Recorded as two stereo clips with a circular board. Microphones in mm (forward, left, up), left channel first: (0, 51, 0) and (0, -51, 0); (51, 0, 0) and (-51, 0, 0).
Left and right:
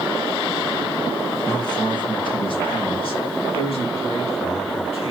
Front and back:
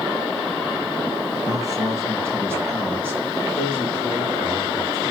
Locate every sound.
1.5 s a man speaking: 130° left, 3 m; by 5.1 s 100° left, 6 m